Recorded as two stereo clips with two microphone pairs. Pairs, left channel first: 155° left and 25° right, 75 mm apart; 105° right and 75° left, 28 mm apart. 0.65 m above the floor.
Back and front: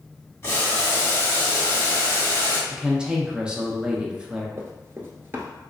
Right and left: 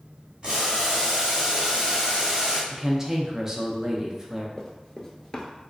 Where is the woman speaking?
40° left, 0.6 m.